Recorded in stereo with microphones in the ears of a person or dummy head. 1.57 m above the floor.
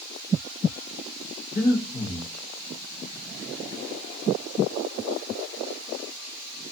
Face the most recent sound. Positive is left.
turn(degrees=40)  # may be behind; listen again after turning